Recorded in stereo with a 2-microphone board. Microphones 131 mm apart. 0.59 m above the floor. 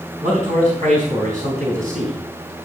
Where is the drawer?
I don't hear a drawer.